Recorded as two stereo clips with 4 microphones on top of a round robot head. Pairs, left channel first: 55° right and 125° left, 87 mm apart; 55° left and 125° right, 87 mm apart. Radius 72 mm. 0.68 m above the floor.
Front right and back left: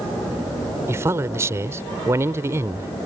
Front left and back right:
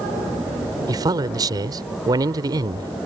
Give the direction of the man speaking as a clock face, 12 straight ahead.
6 o'clock.